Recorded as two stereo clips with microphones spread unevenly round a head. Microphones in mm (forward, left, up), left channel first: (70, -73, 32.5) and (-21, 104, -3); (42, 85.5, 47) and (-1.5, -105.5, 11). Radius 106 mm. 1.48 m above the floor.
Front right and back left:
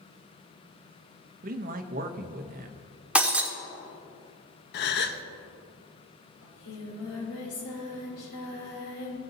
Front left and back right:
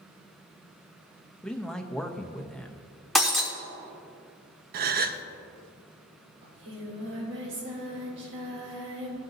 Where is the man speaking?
165° left, 0.7 m.